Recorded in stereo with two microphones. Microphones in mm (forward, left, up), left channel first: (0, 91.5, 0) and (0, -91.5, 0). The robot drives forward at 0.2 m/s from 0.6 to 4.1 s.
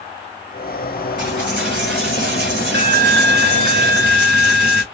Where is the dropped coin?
80° right, 1.5 m; by 4.8 s 60° right (ahead or behind), 1.7 m.